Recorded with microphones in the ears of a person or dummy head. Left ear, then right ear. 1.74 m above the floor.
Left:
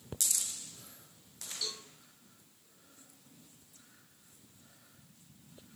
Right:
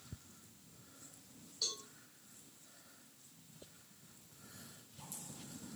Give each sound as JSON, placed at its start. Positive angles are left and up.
{"t": 1.6, "sound": "a cowbell", "side_deg": 50, "distance_m": 1.4}